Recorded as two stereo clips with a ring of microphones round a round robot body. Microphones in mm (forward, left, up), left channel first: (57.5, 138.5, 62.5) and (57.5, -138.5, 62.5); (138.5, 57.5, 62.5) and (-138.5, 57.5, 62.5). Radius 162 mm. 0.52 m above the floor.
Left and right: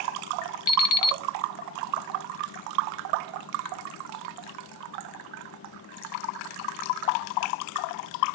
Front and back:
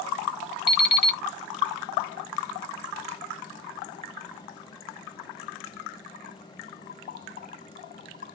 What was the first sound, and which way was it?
An alarm clock, 55° left.